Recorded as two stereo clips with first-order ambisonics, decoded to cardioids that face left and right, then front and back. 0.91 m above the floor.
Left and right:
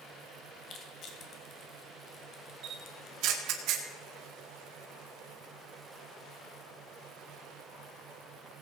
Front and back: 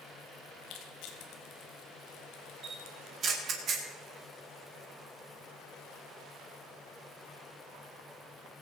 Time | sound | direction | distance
0.6 | crushing | 35° left | 1.9 m
2.6 | a camera shutter | 120° right | 2.0 m